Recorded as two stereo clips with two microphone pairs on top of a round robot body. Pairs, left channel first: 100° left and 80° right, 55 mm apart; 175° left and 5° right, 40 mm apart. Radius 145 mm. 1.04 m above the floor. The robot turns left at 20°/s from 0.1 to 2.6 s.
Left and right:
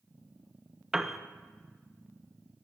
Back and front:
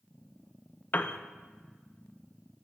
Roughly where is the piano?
Behind.